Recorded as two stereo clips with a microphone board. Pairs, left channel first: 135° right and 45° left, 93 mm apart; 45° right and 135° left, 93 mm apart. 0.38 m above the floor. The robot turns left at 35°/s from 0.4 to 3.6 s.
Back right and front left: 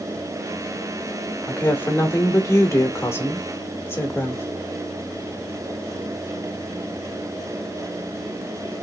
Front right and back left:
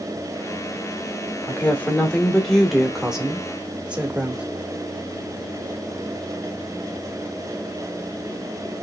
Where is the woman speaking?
90° right, 1.1 m; by 4.5 s 165° right, 1.1 m.